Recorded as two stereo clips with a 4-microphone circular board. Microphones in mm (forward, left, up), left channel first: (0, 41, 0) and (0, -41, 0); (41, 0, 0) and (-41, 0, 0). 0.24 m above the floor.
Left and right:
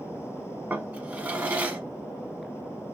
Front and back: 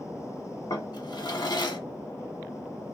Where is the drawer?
20° right, 0.7 m.